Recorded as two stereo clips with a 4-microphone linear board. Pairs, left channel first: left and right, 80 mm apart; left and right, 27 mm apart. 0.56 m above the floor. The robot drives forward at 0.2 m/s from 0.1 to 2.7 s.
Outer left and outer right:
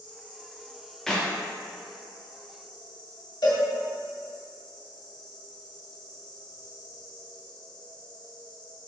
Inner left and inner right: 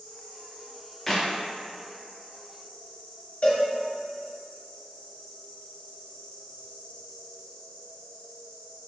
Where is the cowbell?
80° left, 1.1 m.